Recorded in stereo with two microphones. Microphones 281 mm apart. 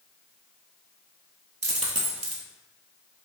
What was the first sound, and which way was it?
A dropped coin, 60° right (ahead or behind).